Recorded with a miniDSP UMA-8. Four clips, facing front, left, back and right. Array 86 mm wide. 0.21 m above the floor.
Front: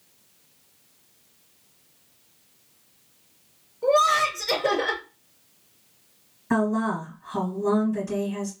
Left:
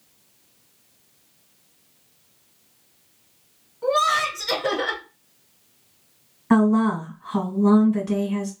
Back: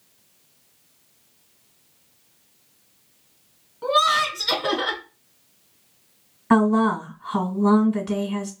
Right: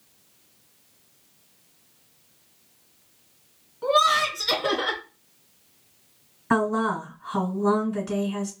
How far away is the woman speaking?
About 1.8 m.